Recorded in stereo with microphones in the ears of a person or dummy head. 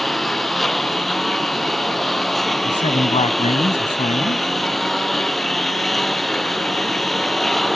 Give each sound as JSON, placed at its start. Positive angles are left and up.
{"t": 0.0, "sound": "a lawn mower", "side_deg": 0}
{"t": 2.6, "sound": "a man speaking", "side_deg": 25}